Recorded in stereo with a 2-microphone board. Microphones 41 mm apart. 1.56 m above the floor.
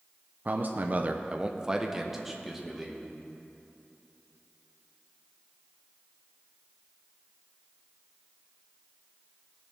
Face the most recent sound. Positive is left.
turn(degrees=0)  # may be behind; listen again after turning